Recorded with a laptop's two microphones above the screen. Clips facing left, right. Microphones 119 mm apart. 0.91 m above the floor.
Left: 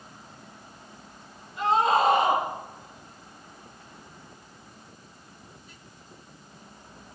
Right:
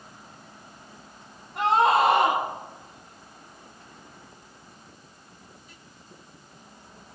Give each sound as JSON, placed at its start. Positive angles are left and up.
{"t": 1.6, "sound": "a scream", "side_deg": -80, "distance_m": 8.0}